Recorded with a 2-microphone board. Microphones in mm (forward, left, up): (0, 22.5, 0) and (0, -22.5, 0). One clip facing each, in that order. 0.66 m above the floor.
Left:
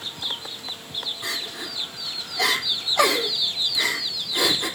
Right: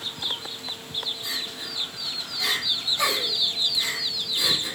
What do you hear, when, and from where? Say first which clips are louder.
1.2 s crying: left 2 dB; 80° left, 3.5 m